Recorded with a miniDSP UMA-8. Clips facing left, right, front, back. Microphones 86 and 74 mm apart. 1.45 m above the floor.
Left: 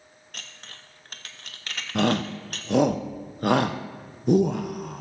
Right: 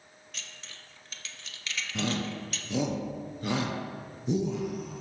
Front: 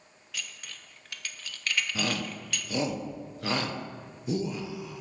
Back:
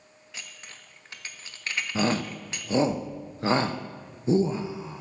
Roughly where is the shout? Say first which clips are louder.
Left 9 dB, back 6 dB; behind left.